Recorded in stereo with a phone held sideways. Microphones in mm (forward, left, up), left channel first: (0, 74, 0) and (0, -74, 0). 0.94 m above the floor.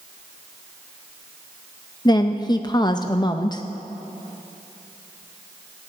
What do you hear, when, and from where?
2.0 s a woman speaking: 30° left (ahead or behind), 0.5 m